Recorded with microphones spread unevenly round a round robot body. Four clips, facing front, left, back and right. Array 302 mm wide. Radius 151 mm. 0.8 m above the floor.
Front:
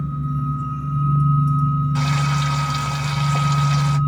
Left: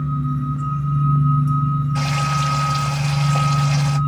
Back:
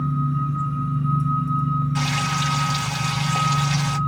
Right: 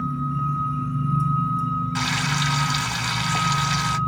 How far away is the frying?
About 1.3 m.